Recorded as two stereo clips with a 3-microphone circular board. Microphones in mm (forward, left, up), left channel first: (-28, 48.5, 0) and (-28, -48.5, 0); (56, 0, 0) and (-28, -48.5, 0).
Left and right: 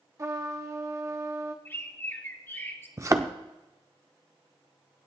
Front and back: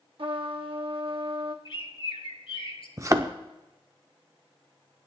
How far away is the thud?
About 0.8 m.